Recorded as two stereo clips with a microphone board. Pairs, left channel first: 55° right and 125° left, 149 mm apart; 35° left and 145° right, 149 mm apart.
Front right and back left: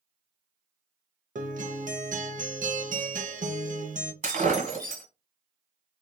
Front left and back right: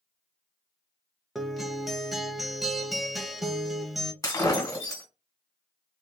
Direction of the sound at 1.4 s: 125° left.